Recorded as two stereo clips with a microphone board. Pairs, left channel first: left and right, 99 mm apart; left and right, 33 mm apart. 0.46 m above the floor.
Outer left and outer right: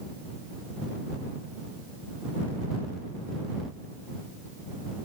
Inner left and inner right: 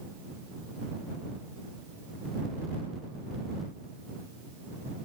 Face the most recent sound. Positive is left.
No sound to turn to.